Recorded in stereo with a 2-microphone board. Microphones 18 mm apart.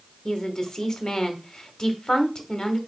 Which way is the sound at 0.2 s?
45° left (ahead or behind).